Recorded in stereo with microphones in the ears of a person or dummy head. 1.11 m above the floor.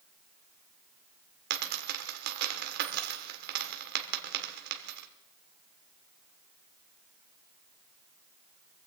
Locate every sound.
1.5 s a dropped coin: 55° right (ahead or behind), 1.5 m